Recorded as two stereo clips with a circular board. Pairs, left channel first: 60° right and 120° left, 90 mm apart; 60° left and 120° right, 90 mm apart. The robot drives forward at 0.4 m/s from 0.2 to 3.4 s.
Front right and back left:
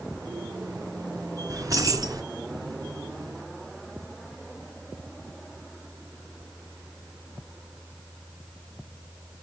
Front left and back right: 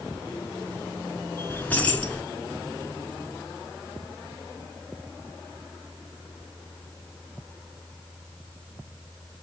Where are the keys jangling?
115° left, 1.2 m; by 2.2 s 130° left, 1.3 m.